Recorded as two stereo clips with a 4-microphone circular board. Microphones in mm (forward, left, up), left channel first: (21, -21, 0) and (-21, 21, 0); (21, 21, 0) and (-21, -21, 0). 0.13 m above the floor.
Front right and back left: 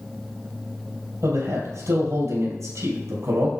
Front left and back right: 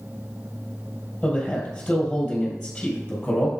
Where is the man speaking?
125° left, 4 m.